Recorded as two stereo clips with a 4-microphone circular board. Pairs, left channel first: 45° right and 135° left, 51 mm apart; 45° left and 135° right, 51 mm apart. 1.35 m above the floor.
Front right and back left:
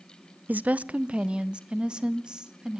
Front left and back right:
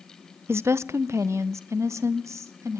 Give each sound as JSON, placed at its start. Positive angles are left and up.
{"t": 0.5, "sound": "a woman speaking", "azimuth_deg": -170, "distance_m": 0.6}